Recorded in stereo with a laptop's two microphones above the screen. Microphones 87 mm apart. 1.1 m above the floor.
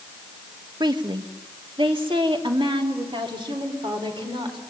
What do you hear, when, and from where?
0.8 s a woman speaking: 55° right (ahead or behind), 1.1 m; by 4.6 s 75° right (ahead or behind), 4 m